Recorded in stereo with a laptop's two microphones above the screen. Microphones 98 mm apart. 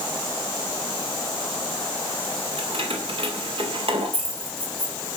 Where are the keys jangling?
85° right, 3 m.